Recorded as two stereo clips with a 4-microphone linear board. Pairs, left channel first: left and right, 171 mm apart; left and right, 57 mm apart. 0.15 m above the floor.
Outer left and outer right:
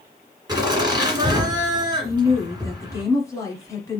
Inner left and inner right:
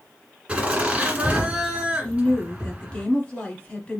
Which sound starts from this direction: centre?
A woman speaking, at 2.0 s.